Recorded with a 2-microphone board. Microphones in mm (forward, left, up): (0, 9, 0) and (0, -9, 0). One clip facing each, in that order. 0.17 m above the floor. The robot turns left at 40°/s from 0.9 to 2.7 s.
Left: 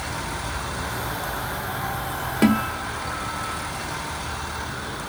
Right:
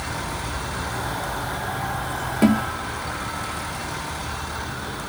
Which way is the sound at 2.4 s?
15° left (ahead or behind).